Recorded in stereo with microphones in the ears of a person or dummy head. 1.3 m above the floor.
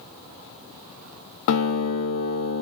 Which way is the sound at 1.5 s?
65° left (ahead or behind).